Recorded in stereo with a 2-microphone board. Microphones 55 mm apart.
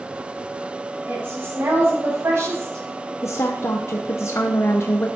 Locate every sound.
1.1 s a woman speaking: 40° right (ahead or behind), 6 m; by 3.1 s 65° right (ahead or behind), 5.5 m
3.2 s a woman speaking: 55° left (ahead or behind), 0.9 m